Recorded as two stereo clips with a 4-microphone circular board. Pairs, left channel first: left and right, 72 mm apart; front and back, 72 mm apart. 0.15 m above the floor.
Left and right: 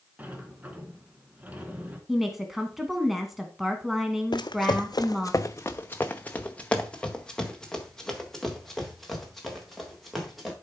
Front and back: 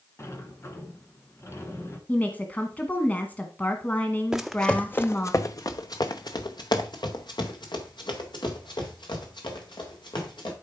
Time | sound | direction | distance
0.2 | a sliding door | 30° right | 1.5 m
2.1 | a woman speaking | 10° right | 1.0 m
4.3 | running footsteps | 100° left | 0.6 m